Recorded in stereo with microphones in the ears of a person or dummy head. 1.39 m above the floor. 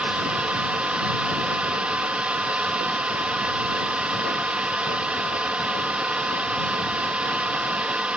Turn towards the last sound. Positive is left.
turn(degrees=-5)  # may be behind; listen again after turning